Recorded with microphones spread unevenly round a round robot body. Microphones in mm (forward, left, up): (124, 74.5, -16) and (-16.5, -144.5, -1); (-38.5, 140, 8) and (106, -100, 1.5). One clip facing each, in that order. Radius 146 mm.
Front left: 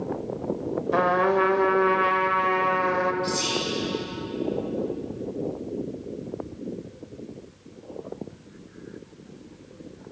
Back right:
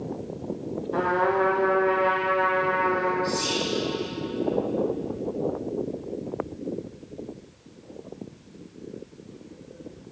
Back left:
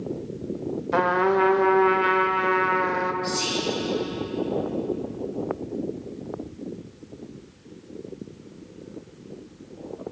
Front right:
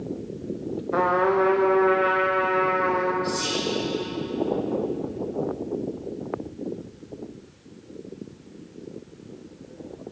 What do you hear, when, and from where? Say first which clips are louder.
0.9 s a trumpet: front left 1 dB, even; 85° left, 0.7 m
3.2 s whispering: back right 1 dB, even; 110° left, 1.7 m